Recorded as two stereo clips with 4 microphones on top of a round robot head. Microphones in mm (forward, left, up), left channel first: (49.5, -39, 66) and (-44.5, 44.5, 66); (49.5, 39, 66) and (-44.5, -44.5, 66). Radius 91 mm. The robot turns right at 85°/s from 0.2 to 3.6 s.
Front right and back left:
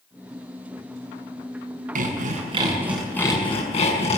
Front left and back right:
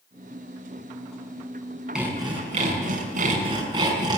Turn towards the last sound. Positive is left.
turn(degrees=-80)